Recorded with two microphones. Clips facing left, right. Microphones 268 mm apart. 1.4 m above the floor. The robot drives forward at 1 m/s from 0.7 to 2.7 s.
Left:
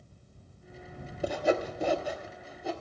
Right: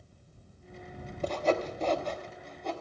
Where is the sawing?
10° left (ahead or behind), 0.9 m; by 2.7 s 5° left (ahead or behind), 1.4 m.